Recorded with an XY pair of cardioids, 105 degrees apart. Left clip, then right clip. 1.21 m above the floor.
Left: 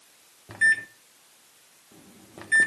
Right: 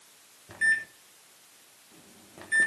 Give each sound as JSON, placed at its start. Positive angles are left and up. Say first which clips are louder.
{"t": 0.5, "sound": "a microwave", "louder": "left 4 dB", "azimuth_deg": 40, "distance_m": 1.1}